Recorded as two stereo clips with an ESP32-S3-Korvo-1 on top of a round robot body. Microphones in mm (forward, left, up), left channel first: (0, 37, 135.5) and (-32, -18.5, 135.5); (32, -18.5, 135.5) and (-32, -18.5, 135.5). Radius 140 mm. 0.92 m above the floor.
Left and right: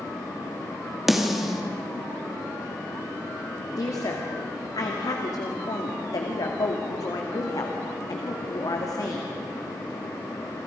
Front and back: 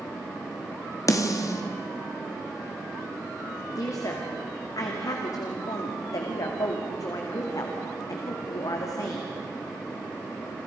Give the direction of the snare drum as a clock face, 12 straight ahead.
1 o'clock.